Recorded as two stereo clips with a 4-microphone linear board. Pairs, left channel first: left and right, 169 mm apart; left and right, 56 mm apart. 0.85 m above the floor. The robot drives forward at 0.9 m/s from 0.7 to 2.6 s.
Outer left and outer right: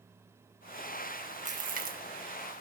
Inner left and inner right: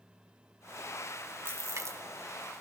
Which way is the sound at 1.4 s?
45° right (ahead or behind).